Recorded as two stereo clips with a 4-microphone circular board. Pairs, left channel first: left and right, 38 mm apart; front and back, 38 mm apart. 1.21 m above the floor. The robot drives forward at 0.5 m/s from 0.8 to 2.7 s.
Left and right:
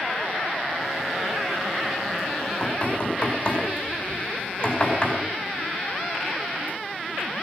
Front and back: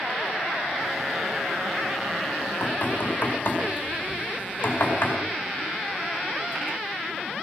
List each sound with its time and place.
2.4 s knocking: 30° left, 5 m